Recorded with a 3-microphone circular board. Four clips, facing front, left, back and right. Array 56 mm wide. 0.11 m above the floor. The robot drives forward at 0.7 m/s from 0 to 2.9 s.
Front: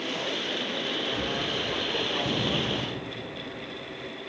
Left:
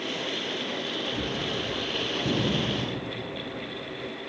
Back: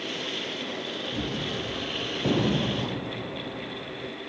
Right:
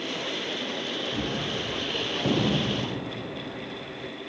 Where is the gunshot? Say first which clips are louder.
Even, front 1 dB; 125° right, 3 m; by 4.1 s 140° right, 4 m.